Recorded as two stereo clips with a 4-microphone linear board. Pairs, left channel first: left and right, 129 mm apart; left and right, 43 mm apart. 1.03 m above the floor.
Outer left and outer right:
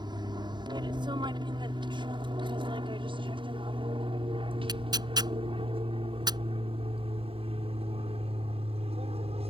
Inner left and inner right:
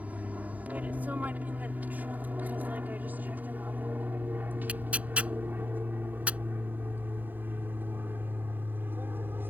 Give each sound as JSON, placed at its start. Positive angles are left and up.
{"t": 0.0, "sound": "an aircraft", "side_deg": -35}
{"t": 4.7, "sound": "tearing paper", "side_deg": -35}